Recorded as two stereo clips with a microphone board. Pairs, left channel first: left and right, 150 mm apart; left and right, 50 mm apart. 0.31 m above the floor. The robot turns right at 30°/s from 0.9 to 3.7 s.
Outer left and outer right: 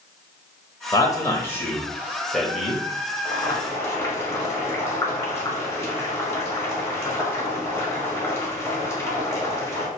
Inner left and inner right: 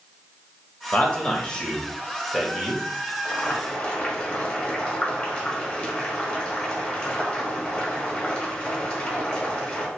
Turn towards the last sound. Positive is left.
turn(degrees=20)  # may be behind; listen again after turning